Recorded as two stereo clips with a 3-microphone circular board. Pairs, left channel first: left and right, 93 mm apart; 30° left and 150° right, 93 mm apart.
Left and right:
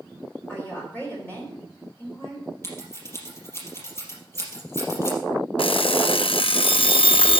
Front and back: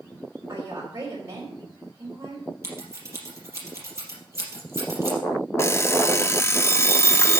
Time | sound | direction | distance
0.5 | a woman speaking | 155° left | 3 m
2.6 | scissors | 150° left | 3.5 m
5.6 | an alarm clock | 90° left | 0.5 m